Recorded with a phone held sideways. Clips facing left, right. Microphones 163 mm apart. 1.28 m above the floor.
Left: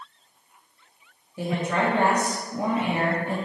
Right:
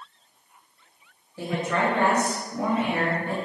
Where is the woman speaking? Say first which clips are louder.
Left 1 dB; 15° left (ahead or behind), 1.2 m.